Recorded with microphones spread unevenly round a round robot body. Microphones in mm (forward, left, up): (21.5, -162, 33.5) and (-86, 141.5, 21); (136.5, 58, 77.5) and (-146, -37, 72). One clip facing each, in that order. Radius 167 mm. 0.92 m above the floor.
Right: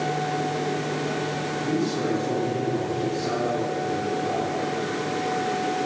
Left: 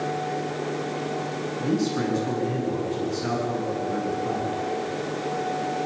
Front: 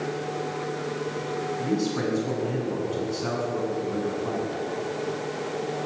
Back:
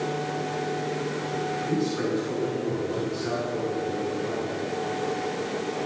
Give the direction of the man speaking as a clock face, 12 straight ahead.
10 o'clock.